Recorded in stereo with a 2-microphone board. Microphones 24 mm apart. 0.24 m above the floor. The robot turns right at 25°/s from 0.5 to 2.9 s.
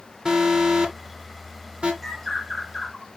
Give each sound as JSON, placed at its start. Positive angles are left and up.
{"t": 0.2, "sound": "an alarm", "side_deg": -30, "distance_m": 2.0}
{"t": 2.0, "sound": "a bird", "side_deg": 10, "distance_m": 2.5}